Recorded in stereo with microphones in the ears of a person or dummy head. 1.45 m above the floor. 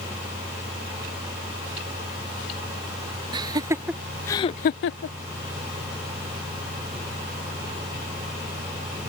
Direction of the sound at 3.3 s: 25° right (ahead or behind).